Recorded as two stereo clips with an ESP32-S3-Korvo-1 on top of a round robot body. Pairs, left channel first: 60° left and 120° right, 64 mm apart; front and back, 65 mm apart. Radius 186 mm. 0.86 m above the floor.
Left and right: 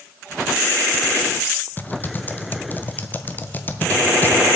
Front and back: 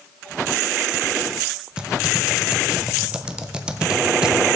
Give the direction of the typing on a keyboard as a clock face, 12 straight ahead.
8 o'clock.